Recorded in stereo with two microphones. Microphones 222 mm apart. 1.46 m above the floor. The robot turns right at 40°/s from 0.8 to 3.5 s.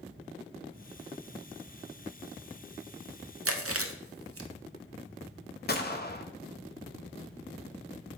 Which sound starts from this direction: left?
A gunshot, at 5.7 s.